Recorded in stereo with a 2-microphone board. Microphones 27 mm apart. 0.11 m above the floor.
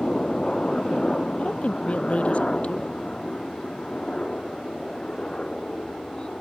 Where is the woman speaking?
50° left (ahead or behind).